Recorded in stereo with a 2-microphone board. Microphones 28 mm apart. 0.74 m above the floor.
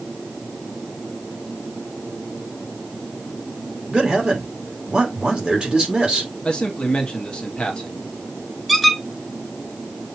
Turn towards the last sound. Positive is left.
turn(degrees=0)  # may be behind; listen again after turning